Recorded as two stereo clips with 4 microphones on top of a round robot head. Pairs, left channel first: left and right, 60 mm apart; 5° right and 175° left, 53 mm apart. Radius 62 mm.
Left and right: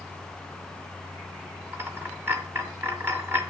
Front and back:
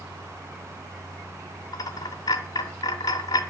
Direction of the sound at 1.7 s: 25° right.